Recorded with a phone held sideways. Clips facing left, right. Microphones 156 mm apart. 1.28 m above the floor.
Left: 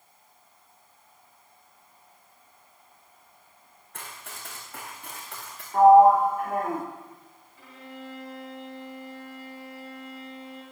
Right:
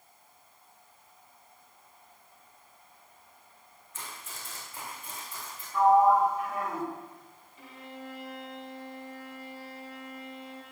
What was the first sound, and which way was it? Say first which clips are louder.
Running footsteps: left 2 dB; 60° left (ahead or behind).